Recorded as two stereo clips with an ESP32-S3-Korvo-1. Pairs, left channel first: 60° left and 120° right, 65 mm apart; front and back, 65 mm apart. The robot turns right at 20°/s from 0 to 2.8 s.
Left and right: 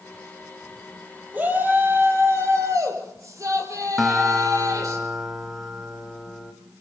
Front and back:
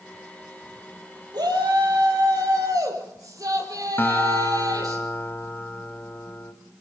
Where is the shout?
175° left, 7 m; by 5.0 s 155° right, 7 m.